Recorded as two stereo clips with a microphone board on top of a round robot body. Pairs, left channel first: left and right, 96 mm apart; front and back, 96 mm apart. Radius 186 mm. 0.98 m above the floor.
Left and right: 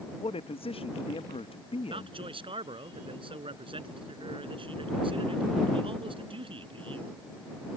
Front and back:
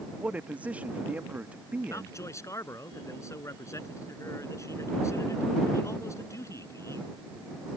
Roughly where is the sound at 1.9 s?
Ahead right.